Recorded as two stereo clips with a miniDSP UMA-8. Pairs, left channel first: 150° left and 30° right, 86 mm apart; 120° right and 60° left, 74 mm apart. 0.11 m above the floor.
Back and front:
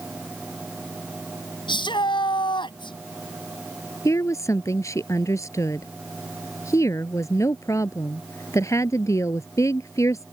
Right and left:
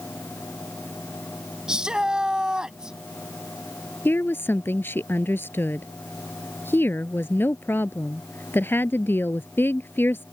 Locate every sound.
1.7 s a shout: 140° left
4.0 s a woman speaking: 170° right